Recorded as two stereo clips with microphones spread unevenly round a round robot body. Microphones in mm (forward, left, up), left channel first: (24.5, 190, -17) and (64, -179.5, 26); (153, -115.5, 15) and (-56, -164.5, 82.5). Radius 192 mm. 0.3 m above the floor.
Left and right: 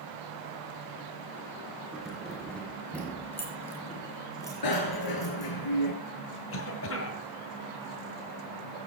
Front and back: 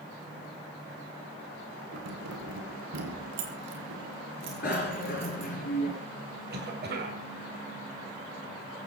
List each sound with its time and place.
1.9 s keys jangling: 175° right, 3 m; by 5.5 s 175° left, 5.5 m
4.6 s a bicycle bell: 70° left, 3.5 m
6.5 s a cough: 140° left, 2.5 m